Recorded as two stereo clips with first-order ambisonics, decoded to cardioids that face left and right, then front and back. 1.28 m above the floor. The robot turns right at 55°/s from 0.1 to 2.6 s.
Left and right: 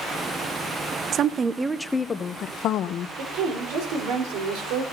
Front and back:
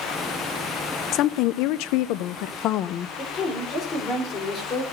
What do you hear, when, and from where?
1.1 s a woman speaking: 40° right, 0.6 m; by 3.1 s 40° left, 0.6 m
3.2 s a woman speaking: 65° right, 4 m